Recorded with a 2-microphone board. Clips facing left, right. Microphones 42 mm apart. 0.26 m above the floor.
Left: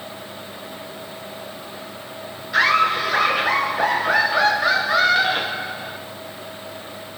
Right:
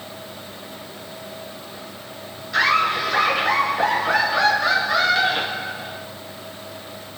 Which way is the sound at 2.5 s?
15° left (ahead or behind).